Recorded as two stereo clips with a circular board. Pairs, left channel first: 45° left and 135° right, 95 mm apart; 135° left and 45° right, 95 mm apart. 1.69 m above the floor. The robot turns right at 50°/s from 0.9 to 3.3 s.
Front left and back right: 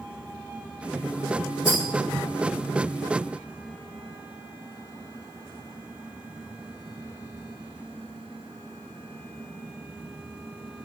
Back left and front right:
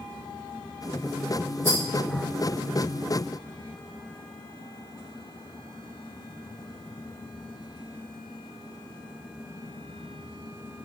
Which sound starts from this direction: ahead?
A rattle, at 1.6 s.